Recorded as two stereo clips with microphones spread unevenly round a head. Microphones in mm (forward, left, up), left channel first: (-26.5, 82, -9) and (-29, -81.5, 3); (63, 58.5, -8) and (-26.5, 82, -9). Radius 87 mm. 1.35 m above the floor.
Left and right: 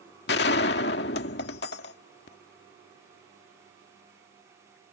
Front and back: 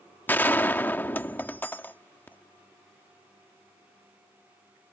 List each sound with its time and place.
0.3 s a gunshot: 55° left